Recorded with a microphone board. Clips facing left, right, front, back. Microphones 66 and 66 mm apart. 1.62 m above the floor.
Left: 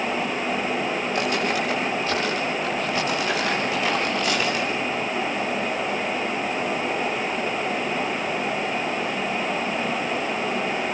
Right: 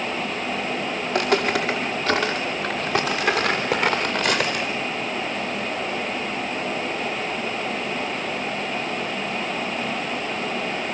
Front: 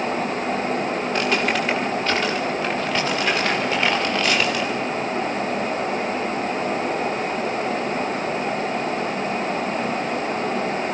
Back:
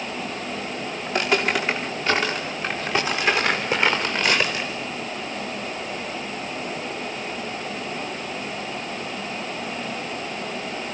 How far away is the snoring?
I don't hear snoring.